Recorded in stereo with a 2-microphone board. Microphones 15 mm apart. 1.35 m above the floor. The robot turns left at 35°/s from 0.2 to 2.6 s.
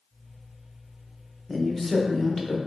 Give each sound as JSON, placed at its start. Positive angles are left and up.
{"t": 1.5, "sound": "a woman speaking", "azimuth_deg": -170, "distance_m": 0.9}